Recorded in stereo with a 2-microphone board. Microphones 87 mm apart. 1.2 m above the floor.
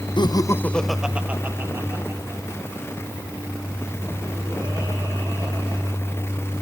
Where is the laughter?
60° left (ahead or behind), 0.8 m; by 6.6 s 50° right (ahead or behind), 7 m.